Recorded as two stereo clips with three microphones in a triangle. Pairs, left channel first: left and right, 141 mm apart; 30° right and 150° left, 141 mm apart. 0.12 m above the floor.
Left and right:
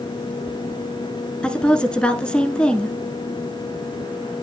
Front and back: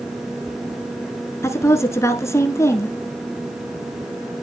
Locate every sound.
1.4 s a woman speaking: 15° left, 1.3 m